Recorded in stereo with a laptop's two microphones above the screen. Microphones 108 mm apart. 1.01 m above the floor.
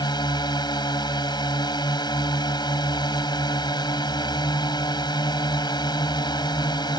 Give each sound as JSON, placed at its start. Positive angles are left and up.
{"t": 0.0, "sound": "a drone", "side_deg": 40}